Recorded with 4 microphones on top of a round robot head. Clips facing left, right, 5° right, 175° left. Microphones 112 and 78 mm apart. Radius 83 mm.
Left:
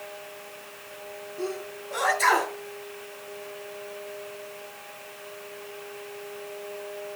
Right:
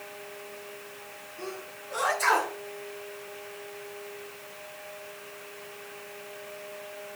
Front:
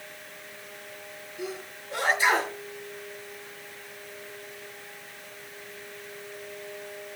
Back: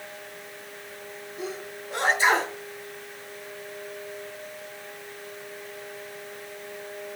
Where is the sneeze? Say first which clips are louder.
Left 7 dB, back 1 dB; 115° left, 6 m.